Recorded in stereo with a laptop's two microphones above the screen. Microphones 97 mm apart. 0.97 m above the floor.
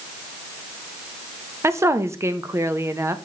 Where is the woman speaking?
30° right (ahead or behind), 0.8 m.